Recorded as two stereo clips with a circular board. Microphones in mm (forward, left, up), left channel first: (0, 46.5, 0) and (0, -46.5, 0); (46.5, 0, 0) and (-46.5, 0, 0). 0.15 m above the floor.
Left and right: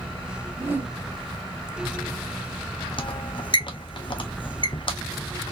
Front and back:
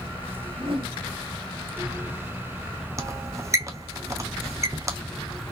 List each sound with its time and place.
0.5 s a whoosh: 155° right, 1.9 m
3.0 s a squeak: 120° left, 0.5 m